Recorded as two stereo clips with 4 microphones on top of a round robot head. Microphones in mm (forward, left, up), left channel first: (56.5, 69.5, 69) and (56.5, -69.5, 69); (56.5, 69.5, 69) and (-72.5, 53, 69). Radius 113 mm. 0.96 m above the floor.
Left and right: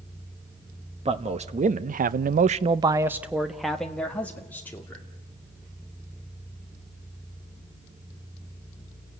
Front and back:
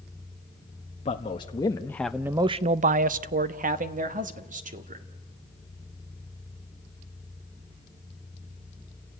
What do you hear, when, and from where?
1.1 s a man speaking: 45° right, 1.3 m; by 5.1 s 165° left, 2.5 m